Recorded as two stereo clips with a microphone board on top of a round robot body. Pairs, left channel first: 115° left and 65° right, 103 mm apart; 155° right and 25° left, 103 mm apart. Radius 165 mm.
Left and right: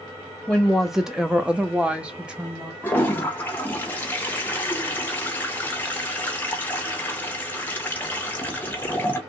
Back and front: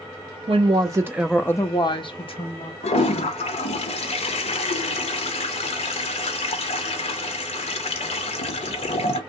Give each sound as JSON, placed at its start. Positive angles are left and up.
{"t": 0.5, "sound": "a woman speaking", "azimuth_deg": 20, "distance_m": 1.0}
{"t": 2.8, "sound": "a toilet flushing", "azimuth_deg": -175, "distance_m": 0.5}